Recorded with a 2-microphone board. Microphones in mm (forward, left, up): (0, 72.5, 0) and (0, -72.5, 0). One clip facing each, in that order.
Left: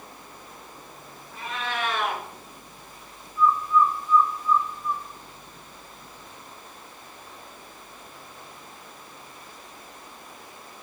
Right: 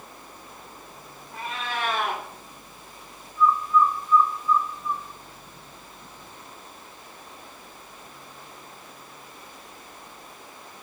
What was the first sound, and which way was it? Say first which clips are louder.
A cat meowing: even; 35° right (ahead or behind).